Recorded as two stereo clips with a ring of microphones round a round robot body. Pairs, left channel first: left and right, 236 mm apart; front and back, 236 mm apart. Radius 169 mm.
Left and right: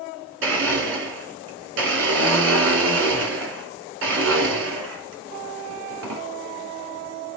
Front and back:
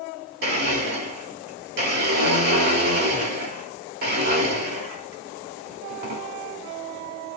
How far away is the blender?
About 1.6 m.